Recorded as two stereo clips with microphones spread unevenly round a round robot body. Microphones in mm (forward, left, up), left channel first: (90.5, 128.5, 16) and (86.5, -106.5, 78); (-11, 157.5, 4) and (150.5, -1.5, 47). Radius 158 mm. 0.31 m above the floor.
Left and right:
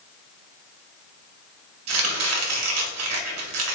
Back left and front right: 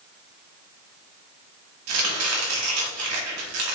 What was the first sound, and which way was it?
Chopping, 70° right.